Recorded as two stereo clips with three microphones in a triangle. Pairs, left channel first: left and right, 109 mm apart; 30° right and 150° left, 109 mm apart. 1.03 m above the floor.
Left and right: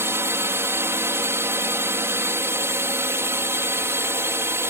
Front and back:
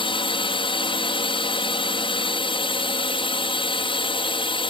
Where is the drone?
30° right.